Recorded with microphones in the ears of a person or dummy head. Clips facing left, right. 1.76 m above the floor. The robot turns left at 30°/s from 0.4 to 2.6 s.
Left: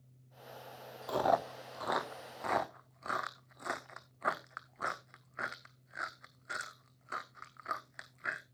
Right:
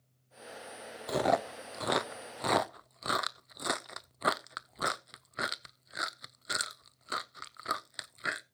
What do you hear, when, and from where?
1.1 s chewing: 25° right (ahead or behind), 0.6 m; by 8.4 s 45° right (ahead or behind), 0.6 m